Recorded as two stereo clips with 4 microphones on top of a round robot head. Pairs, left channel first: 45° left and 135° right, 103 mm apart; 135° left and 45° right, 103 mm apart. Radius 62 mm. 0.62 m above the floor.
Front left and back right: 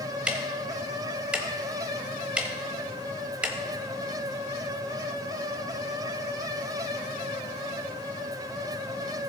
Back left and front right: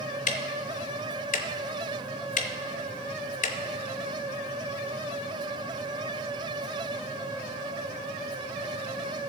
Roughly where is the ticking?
Behind left.